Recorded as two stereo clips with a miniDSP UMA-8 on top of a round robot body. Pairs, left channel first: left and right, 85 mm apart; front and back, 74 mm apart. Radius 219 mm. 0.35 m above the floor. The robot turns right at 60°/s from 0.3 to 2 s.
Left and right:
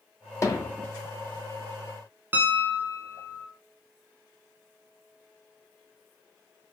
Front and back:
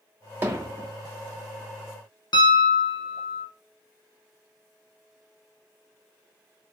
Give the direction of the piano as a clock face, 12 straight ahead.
1 o'clock.